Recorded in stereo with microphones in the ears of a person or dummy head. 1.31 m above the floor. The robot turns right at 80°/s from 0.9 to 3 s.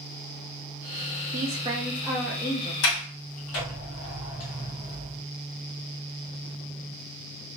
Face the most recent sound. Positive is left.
turn(degrees=60)  # may be behind; listen again after turning